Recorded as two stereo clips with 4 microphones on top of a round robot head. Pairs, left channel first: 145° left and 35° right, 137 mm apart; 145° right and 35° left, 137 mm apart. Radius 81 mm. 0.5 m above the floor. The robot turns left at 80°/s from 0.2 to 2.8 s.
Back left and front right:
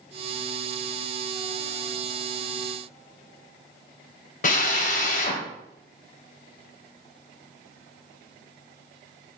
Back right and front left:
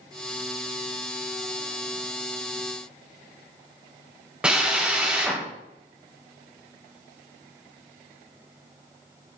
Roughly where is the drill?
Behind left.